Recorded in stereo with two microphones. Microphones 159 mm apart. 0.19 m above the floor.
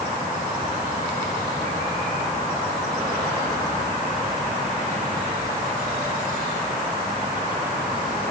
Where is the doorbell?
No doorbell in this recording.